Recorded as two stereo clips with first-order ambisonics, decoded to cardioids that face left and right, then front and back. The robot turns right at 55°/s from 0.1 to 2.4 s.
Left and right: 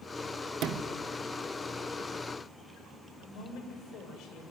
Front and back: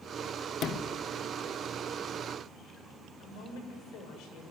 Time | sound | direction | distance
0.6 | a sliding door | 50° right | 1.1 m
3.2 | a woman speaking | 40° left | 6 m